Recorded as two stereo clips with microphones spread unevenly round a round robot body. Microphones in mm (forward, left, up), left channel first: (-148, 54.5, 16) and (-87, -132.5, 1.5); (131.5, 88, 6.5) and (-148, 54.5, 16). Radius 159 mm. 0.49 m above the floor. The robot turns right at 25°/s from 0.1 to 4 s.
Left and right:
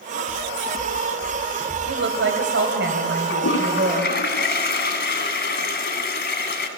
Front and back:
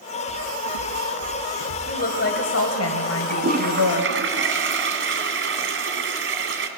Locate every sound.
0.3 s footsteps: 10° right, 3.5 m; by 1.8 s 20° left, 3 m
1.9 s a woman speaking: 60° right, 2.5 m; by 4.2 s 5° right, 2.5 m
3.3 s a toilet flushing: 125° left, 2.5 m; by 6.7 s 140° left, 2.5 m